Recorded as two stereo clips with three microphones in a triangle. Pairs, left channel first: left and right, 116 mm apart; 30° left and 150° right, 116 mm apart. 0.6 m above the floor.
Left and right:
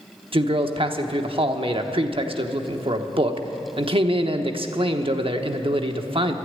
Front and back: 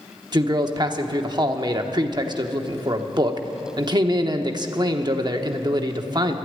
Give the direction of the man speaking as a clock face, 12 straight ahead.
4 o'clock.